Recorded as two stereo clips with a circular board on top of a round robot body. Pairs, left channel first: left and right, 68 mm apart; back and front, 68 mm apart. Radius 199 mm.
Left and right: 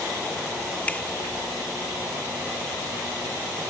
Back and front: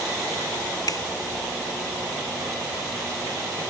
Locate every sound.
0.9 s a finger snap: 160° left